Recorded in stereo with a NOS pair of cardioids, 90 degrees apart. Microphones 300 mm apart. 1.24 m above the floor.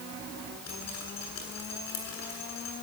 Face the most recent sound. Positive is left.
turn(degrees=65)